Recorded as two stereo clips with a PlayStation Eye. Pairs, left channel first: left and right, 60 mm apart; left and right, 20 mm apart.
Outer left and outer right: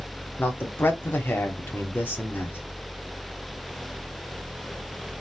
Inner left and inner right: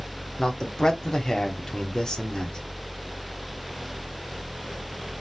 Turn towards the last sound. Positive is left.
turn(degrees=35)  # may be behind; listen again after turning